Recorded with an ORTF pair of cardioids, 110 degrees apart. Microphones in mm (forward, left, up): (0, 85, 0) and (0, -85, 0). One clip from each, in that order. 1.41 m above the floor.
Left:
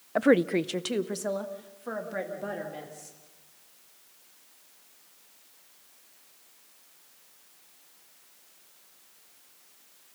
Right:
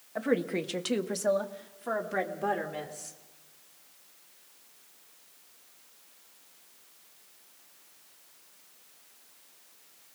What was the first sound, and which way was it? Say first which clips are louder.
A woman speaking: left 7 dB; 55° left.